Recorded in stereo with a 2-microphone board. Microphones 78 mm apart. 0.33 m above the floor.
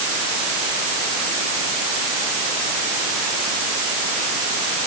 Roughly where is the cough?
No cough in this recording.